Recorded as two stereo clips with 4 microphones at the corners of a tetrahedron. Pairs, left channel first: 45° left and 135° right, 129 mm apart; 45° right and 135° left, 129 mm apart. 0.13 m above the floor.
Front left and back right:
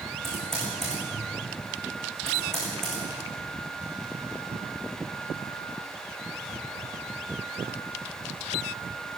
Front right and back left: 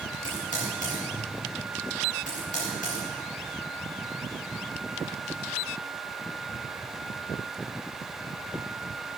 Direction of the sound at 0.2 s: 40° right.